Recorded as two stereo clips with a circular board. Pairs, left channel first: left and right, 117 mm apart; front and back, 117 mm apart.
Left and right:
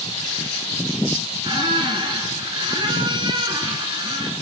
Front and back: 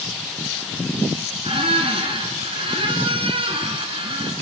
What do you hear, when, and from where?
1.4 s a squeak: 140° right, 3 m